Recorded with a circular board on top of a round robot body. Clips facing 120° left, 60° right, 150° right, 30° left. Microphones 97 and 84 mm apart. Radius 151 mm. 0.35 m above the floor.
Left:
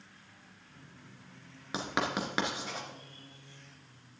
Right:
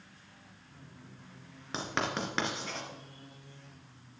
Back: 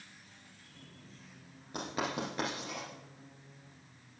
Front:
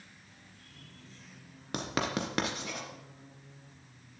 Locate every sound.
1.7 s writing: 40° left, 2 m